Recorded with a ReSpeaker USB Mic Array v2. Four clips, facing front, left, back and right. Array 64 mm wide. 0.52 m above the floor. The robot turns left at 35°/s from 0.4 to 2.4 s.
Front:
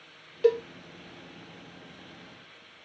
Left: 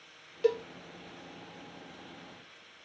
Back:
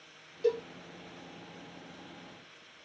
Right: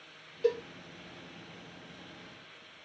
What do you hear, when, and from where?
0.4 s a cowbell: 20° left, 0.8 m; by 0.6 s 15° left, 0.8 m